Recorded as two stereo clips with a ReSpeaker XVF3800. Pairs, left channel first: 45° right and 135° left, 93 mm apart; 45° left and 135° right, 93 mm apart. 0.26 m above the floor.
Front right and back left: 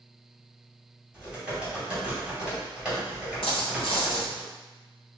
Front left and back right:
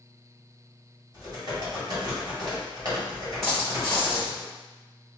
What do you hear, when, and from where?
1.1 s typing on a keyboard: 150° right, 1.9 m
3.4 s a dropped coin: 40° right, 1.2 m